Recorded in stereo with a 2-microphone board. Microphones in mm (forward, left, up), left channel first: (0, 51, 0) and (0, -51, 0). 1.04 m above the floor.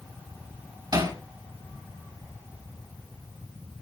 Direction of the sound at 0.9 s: 40° right (ahead or behind).